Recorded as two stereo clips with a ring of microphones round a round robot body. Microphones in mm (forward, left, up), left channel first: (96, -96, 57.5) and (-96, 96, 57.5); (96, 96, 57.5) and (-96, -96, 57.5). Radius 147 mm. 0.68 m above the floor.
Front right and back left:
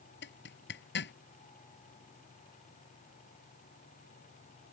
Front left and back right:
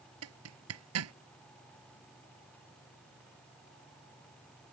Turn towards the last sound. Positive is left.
turn(degrees=-95)